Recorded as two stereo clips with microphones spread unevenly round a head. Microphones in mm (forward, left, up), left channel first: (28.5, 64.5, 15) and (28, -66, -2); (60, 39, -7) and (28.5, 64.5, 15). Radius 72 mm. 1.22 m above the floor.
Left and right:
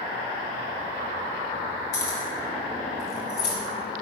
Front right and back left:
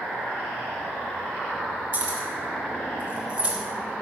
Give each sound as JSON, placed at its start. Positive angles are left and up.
{"t": 1.9, "sound": "keys jangling", "azimuth_deg": 105, "distance_m": 4.0}